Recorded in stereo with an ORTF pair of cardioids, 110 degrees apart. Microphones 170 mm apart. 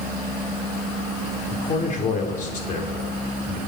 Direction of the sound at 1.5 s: 50° left.